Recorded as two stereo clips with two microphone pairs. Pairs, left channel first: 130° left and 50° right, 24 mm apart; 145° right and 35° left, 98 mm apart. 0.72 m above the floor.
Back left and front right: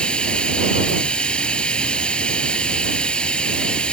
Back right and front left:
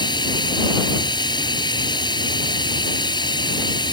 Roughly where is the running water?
Behind.